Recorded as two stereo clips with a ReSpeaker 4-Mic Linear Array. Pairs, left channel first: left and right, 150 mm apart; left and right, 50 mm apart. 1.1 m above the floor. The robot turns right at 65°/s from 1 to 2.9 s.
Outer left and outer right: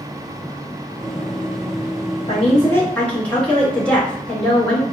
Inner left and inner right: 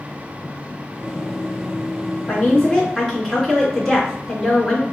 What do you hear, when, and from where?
2.3 s a woman speaking: 135° left, 1.5 m; by 4.8 s 175° left, 1.5 m